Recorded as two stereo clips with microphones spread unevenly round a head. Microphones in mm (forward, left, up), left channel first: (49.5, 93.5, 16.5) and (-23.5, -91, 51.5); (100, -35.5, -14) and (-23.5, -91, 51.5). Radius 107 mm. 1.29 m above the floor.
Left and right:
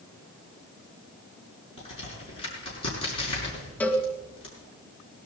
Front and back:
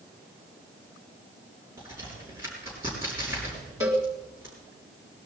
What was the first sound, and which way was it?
A crack, 135° left.